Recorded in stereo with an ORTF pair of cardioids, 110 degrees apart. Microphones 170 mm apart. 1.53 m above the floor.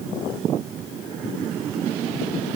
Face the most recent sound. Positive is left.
No sound to turn to.